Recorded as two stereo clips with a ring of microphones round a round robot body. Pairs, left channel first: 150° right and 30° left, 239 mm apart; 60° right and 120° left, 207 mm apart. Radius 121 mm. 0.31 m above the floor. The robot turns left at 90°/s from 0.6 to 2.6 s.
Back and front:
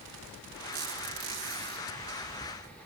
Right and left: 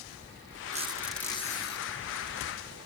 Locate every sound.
0.7 s a squeak: 65° left, 4.5 m; by 1.9 s 35° right, 4.5 m